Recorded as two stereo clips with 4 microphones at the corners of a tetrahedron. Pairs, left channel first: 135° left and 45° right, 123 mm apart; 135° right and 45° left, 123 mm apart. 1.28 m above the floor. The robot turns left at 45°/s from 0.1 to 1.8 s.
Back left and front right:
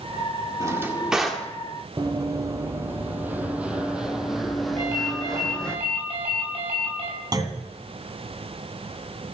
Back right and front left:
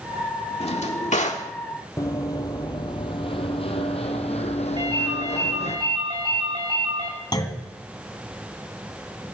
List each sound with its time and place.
0.6 s a drawer: 105° right, 1.7 m; by 1.5 s 145° right, 1.7 m
2.0 s running footsteps: 85° right, 1.7 m; by 5.8 s 140° right, 2.5 m
4.8 s a ringtone: 5° right, 6.5 m
7.3 s a clunk: 90° right, 1.7 m